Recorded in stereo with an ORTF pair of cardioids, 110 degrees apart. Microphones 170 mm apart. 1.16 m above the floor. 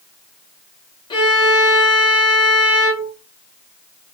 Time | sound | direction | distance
1.1 | a violin | 25° left | 1.3 m